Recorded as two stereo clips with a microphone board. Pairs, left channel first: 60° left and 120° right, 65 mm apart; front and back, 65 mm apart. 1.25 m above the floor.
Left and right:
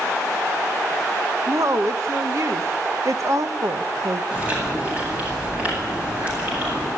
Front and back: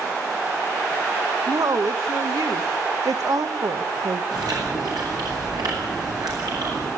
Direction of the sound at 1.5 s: 160° right.